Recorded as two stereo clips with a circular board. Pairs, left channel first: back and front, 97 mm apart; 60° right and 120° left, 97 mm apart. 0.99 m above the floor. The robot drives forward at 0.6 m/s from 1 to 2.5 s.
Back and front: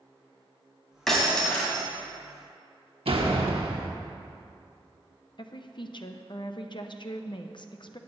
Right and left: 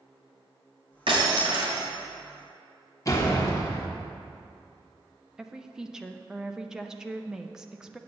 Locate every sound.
1.1 s breaking glass: 95° left, 3 m; by 1.9 s 105° left, 3.5 m
3.0 s a door slam: 5° right, 1.3 m
5.4 s a woman speaking: 155° right, 0.5 m